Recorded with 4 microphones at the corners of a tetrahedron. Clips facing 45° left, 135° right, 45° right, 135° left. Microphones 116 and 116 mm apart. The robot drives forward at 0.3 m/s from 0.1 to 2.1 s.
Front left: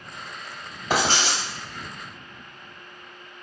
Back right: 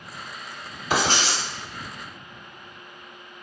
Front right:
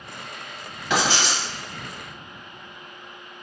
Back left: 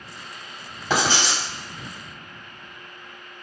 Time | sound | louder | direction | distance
0.9 | writing | even, even | 85° left | 1.8 m